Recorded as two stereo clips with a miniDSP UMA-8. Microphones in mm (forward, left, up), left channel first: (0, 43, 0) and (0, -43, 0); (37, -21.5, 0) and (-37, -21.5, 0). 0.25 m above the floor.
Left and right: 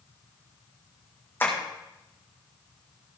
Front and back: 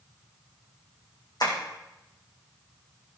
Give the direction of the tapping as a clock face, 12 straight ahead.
11 o'clock.